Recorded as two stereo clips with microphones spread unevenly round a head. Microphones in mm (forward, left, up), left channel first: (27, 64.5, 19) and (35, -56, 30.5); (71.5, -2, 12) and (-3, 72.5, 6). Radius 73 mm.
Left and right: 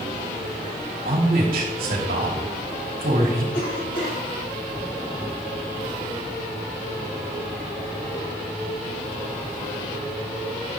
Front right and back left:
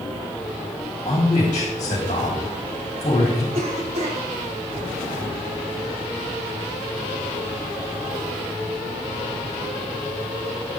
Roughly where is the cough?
Behind left.